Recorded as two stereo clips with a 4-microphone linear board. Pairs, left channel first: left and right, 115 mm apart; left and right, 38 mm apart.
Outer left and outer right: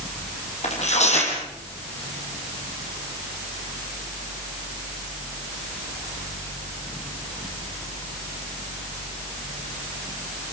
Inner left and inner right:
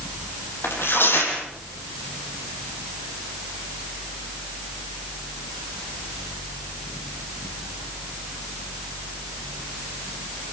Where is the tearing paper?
65° left (ahead or behind), 6 m.